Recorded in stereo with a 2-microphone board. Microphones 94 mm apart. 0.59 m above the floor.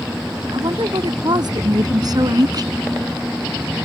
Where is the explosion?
I don't hear an explosion.